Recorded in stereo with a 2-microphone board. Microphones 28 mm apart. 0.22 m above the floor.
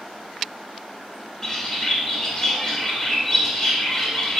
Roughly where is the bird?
Left.